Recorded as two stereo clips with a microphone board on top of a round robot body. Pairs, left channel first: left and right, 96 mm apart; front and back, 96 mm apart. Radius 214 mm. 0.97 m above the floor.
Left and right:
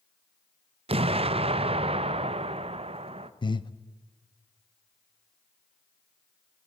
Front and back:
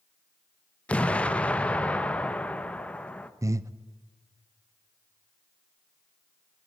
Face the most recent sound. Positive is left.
turn(degrees=125)